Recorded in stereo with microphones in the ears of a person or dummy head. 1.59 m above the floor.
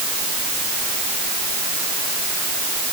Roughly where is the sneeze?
I don't hear a sneeze.